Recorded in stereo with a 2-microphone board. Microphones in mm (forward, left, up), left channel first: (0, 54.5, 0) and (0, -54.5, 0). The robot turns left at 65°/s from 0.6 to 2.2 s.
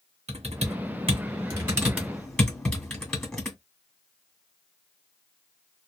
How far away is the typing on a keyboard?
About 1.8 m.